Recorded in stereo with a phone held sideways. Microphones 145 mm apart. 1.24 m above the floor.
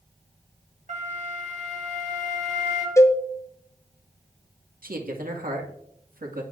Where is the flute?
60° right (ahead or behind), 2.5 m.